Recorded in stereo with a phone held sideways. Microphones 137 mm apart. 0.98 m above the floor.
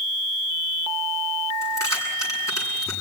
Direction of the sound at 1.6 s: 25° left (ahead or behind).